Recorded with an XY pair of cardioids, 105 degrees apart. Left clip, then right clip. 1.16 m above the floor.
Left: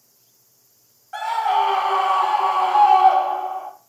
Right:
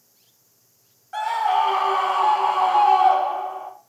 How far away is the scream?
About 0.7 m.